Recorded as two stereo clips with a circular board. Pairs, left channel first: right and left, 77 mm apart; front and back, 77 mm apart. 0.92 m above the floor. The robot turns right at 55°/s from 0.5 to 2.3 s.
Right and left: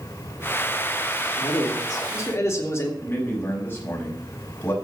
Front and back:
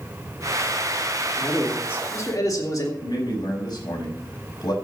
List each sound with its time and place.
1.4 s a man speaking: 90° right, 3 m; by 2.9 s 40° right, 3 m
3.0 s a man speaking: 30° right, 6 m